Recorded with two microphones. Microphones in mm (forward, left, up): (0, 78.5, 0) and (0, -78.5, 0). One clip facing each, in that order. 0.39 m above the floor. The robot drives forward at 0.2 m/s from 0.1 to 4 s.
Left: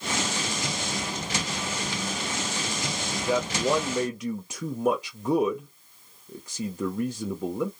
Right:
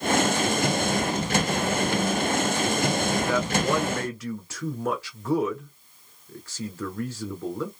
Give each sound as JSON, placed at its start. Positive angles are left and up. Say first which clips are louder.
{"t": 3.3, "sound": "a man speaking", "louder": "right 1 dB", "side_deg": 15, "distance_m": 1.0}